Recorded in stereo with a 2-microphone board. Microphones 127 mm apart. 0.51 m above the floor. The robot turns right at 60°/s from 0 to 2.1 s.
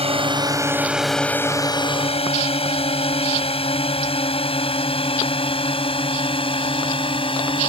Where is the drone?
55° right (ahead or behind); by 7.7 s 45° left (ahead or behind).